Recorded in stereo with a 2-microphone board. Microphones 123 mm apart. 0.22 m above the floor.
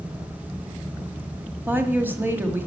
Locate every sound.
1.7 s a woman speaking: 15° right (ahead or behind), 1.3 m